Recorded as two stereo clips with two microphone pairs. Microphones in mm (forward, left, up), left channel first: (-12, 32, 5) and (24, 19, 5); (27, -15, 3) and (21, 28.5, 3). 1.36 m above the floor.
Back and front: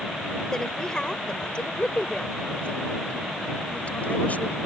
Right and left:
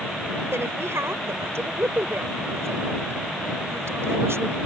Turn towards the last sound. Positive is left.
turn(degrees=110)